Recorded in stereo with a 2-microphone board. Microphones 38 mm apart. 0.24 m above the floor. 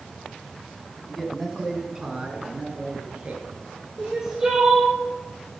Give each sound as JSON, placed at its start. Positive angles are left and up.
{"t": 1.1, "sound": "a man speaking", "side_deg": 10, "distance_m": 1.5}
{"t": 4.0, "sound": "crying", "side_deg": -15, "distance_m": 3.5}